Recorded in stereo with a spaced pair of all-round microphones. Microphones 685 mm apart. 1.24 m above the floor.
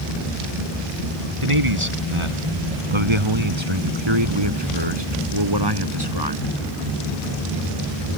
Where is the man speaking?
45° right (ahead or behind); by 6.5 s 35° right (ahead or behind).